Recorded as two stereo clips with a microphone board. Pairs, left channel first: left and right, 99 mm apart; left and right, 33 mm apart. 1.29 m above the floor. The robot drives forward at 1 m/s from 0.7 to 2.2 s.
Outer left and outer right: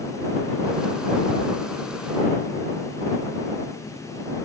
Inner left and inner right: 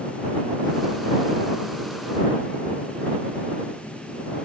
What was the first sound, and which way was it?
Only background noise.